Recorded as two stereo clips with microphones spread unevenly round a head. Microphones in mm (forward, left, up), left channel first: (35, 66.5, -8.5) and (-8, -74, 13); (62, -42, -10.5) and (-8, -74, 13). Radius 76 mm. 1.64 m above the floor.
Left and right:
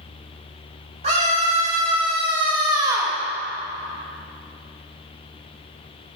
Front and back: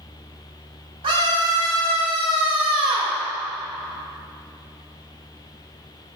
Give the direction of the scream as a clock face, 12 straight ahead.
5 o'clock.